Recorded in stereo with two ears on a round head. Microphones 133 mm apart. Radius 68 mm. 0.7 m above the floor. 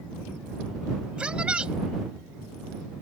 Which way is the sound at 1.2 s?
5° right (ahead or behind).